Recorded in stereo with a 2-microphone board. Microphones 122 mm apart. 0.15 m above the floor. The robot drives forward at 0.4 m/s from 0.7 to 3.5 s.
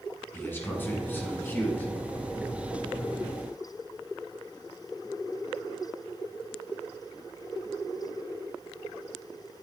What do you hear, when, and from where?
0.3 s a man speaking: 20° left (ahead or behind), 1.6 m; by 1.9 s 15° left (ahead or behind), 1.8 m